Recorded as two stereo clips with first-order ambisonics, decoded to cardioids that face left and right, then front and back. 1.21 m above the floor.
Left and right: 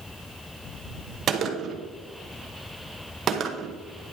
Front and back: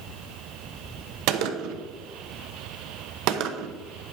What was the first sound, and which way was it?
A gunshot, 150° right.